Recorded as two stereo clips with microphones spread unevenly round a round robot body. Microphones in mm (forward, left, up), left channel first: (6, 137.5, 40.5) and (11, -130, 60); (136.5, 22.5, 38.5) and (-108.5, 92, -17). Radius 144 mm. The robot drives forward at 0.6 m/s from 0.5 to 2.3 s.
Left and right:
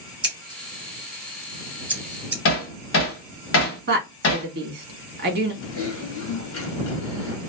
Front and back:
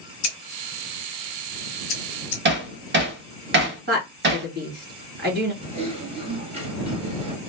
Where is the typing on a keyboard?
110° left, 1.1 m.